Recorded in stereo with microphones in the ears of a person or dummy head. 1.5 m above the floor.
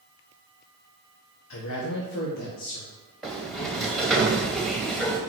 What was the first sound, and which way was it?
A man speaking, 80° left.